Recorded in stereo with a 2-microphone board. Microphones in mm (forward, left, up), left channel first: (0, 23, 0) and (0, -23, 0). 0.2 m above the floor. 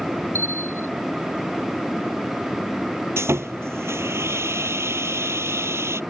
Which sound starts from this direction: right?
Sawing, at 3.2 s.